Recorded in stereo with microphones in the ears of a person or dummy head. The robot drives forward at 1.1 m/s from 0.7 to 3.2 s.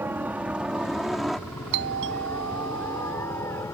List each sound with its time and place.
0.0 s a helicopter: 10° right (ahead or behind); by 3.8 s 15° left (ahead or behind)
1.7 s a doorbell: 65° right (ahead or behind); by 3.6 s 70° right (ahead or behind)